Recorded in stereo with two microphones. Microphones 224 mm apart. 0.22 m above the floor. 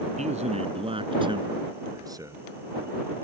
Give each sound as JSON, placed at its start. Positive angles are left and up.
{"t": 0.2, "sound": "a man speaking", "side_deg": -30}